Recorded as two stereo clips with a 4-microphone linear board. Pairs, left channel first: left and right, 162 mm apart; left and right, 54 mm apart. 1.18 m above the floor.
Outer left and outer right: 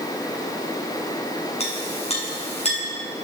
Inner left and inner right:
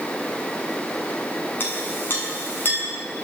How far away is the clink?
About 6.5 m.